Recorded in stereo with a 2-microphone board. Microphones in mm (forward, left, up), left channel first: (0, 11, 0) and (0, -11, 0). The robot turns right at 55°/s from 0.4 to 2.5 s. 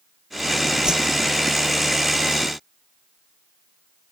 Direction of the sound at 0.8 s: 35° right (ahead or behind).